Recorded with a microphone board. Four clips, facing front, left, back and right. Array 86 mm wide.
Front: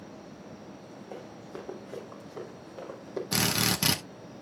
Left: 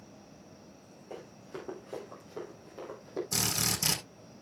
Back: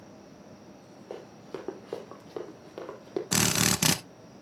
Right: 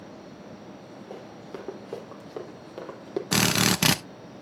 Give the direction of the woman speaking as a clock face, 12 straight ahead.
I don't hear a woman speaking.